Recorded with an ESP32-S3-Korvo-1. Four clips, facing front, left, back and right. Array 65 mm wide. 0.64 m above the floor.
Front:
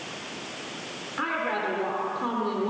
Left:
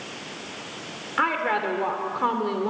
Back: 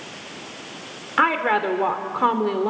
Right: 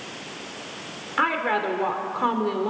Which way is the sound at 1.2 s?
175° left.